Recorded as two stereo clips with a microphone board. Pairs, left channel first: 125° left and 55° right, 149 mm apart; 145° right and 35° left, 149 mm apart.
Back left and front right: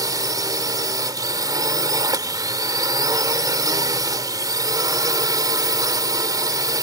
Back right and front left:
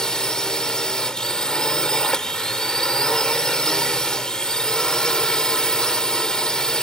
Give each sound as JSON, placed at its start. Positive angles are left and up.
{"t": 0.0, "sound": "a drone", "azimuth_deg": -65}